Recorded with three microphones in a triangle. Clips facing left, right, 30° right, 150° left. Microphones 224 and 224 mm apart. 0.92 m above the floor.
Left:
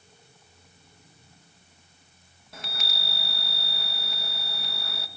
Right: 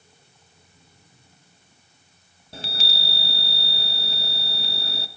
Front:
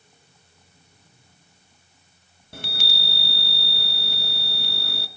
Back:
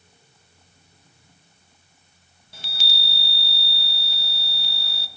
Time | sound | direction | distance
2.5 | a chime | 35° right | 0.8 m